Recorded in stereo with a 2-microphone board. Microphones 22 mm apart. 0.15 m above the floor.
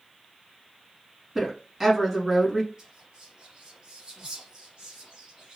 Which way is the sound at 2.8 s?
30° right (ahead or behind).